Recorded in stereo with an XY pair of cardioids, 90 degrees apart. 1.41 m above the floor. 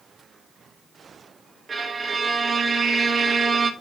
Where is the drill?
I don't hear a drill.